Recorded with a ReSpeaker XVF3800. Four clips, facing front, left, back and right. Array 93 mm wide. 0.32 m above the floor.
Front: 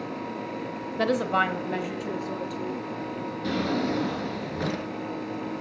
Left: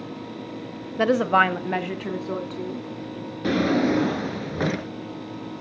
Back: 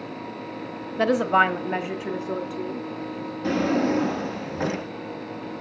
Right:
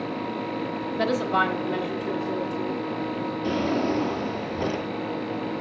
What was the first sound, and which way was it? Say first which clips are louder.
A woman speaking: left 5 dB, back 5 dB; 125° left.